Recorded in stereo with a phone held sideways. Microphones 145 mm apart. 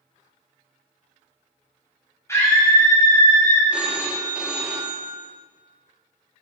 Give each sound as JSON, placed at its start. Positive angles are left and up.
{"t": 2.3, "sound": "a scream", "side_deg": 20, "distance_m": 2.5}
{"t": 3.7, "sound": "a phone ringing", "side_deg": -5, "distance_m": 1.1}